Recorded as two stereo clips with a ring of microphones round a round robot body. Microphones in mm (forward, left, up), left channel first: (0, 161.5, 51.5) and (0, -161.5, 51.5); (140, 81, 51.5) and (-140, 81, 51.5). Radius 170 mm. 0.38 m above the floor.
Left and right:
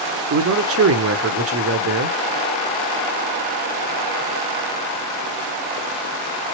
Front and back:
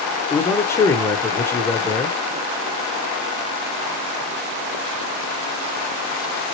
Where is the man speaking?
75° right, 1.0 m.